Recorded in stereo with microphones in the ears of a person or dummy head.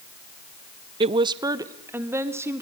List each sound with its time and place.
1.0 s a woman speaking: 30° right (ahead or behind), 0.6 m; by 2.6 s 15° right (ahead or behind), 2.5 m